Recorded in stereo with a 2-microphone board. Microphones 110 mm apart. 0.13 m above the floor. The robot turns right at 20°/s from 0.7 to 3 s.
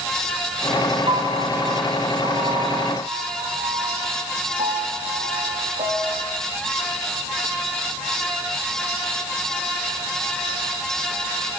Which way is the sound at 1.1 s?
55° right (ahead or behind).